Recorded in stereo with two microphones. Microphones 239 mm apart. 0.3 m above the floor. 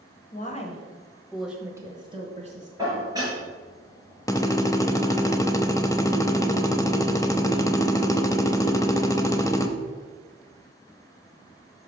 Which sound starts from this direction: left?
A woman speaking, at 0.3 s.